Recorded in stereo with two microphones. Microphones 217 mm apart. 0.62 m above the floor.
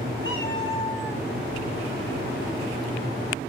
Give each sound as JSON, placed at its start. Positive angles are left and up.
{"t": 0.2, "sound": "a cat meowing", "side_deg": 65, "distance_m": 1.8}